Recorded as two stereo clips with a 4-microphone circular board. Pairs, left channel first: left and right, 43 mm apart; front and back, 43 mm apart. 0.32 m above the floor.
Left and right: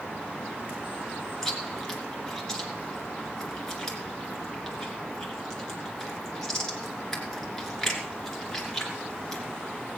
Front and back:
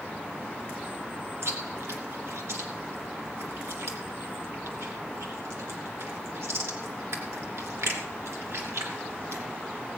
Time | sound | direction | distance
1.4 | chewing | 170° left | 3 m